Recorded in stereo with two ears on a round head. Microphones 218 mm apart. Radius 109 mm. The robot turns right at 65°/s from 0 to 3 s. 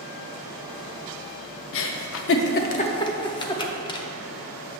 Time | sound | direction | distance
1.7 | a giggle | 55° left (ahead or behind) | 0.6 m